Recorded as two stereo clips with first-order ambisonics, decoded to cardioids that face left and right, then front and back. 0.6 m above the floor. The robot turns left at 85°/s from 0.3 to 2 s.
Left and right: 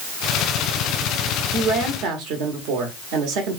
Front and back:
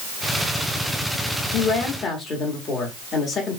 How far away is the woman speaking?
About 1.4 m.